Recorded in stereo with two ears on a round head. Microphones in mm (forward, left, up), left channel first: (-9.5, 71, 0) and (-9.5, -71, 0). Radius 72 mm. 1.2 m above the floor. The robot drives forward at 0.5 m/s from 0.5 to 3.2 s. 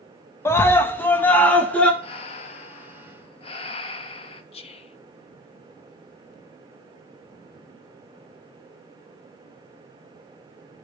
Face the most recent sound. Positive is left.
turn(degrees=40)  # may be behind; listen again after turning